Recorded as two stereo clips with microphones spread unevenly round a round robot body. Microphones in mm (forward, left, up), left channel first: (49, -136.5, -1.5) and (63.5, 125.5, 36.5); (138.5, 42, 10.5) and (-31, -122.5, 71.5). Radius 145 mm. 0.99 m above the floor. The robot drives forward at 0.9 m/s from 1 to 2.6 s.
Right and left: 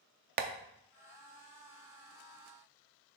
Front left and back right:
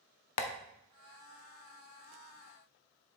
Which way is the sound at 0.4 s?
75° left.